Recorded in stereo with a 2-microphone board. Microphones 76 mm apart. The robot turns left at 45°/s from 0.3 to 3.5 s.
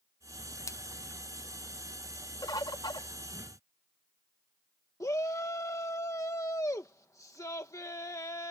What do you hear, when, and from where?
0.7 s a splash: 45° left (ahead or behind); by 0.8 s 40° left (ahead or behind)
2.4 s a bird: 110° left; by 3.1 s 80° left
5.0 s a shout: 45° left (ahead or behind)